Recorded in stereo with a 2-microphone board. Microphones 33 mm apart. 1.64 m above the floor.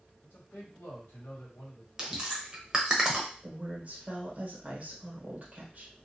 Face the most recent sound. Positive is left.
turn(degrees=-45)  # may be behind; listen again after turning